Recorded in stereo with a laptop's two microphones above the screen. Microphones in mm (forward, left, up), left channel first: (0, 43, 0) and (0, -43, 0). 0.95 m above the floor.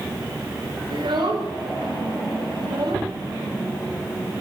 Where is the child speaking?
75° right (ahead or behind), 3 m.